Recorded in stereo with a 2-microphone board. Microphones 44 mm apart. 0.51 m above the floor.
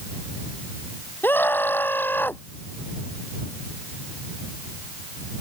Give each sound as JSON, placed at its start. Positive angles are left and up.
{"t": 1.2, "sound": "a scream", "side_deg": 50}